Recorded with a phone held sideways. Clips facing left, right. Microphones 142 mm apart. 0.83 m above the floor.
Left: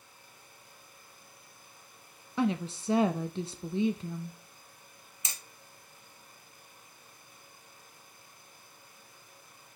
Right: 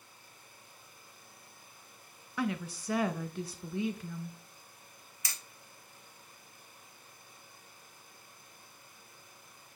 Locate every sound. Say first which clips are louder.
2.4 s a woman speaking: left 5 dB; 25° left (ahead or behind), 0.6 m
5.2 s hammering: left 1 dB; 20° left (ahead or behind), 0.9 m